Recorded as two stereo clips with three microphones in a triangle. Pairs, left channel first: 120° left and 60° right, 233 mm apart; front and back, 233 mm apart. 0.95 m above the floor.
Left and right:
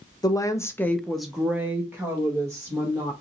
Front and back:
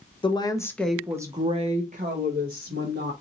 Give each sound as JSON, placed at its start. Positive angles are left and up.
{"t": 0.2, "sound": "a woman speaking", "azimuth_deg": 55, "distance_m": 0.7}